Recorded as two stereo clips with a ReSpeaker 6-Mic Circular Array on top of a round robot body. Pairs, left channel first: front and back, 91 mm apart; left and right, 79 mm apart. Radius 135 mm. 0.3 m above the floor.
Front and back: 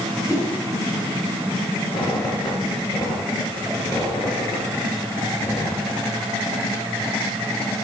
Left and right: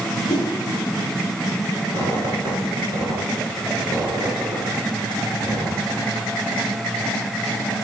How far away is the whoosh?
About 3.5 m.